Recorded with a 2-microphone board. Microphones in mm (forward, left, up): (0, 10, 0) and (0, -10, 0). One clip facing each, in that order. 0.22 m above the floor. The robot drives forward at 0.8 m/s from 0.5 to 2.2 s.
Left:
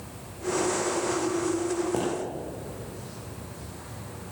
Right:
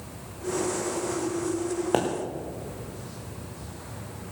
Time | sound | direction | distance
1.9 | a pop | 80° right | 3 m